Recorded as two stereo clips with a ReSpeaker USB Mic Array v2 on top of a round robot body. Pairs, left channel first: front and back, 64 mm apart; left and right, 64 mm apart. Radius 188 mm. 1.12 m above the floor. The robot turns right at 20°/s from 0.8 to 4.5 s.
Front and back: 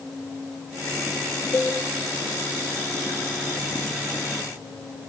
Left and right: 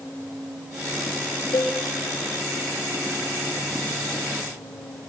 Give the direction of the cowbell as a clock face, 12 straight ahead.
10 o'clock.